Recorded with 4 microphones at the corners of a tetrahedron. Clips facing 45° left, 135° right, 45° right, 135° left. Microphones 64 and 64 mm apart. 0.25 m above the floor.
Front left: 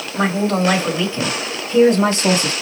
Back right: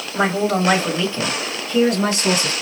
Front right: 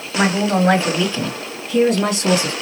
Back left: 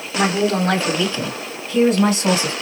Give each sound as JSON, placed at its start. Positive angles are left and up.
{"t": 0.1, "sound": "a woman speaking", "azimuth_deg": -75, "distance_m": 1.4}